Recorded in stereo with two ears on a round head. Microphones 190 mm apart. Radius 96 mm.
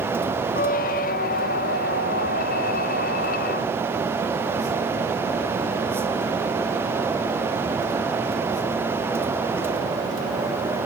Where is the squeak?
40° left (ahead or behind), 0.6 m.